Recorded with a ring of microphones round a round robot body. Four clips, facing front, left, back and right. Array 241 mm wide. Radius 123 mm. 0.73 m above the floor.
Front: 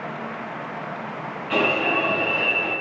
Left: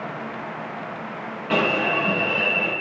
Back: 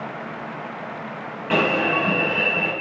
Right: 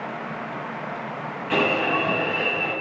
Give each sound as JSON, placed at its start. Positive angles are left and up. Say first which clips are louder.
{"t": 1.5, "sound": "an alarm", "louder": "even, back 2 dB", "azimuth_deg": 150, "distance_m": 6.5}